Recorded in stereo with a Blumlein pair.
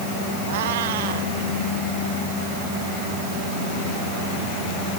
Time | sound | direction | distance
0.5 | a cat meowing | 55° right | ?